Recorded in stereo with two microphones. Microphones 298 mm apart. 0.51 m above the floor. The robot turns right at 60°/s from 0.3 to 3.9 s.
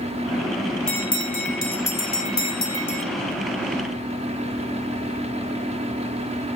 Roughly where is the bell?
Ahead.